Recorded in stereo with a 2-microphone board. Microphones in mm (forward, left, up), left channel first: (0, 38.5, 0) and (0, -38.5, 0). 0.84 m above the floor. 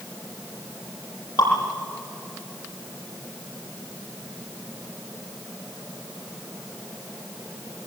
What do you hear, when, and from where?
1.4 s dripping: 65° left (ahead or behind), 9 m